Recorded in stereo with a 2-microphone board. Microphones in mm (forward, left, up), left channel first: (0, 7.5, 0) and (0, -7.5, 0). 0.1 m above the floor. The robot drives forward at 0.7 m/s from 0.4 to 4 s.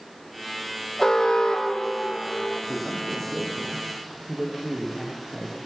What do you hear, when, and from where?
1.0 s an alarm: 25° left (ahead or behind), 6.5 m; by 2.6 s 30° left (ahead or behind), 5.5 m
2.7 s a man speaking: 35° right (ahead or behind), 10 m; by 5.6 s 40° right (ahead or behind), 9 m